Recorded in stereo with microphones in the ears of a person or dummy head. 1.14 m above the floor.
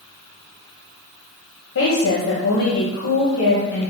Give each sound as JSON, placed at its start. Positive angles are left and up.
{"t": 1.8, "sound": "a woman speaking", "side_deg": 65, "distance_m": 1.2}